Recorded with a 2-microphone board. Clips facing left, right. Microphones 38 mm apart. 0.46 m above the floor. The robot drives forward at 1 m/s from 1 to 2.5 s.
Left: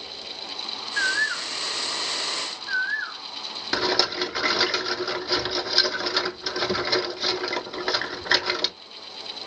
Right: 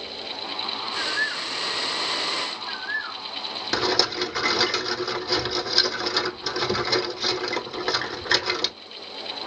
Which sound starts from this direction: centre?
A rattle, at 3.7 s.